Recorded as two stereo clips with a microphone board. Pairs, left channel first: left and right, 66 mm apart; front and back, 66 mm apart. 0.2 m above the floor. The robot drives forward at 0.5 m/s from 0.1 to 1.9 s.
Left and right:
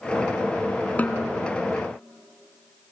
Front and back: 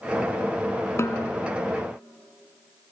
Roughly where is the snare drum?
Ahead left.